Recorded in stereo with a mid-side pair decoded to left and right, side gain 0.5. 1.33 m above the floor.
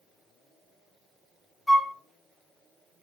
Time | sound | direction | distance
1.7 | a flute | 15° left | 0.6 m